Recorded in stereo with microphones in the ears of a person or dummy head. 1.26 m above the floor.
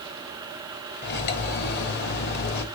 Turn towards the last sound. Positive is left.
turn(degrees=55)  # may be behind; listen again after turning